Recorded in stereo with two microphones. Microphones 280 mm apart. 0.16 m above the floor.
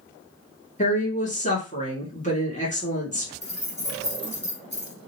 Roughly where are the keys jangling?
Left.